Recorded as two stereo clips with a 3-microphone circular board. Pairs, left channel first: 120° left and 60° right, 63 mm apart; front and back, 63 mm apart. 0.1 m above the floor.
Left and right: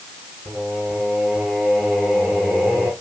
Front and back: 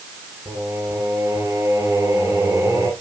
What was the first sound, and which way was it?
Singing, 140° right.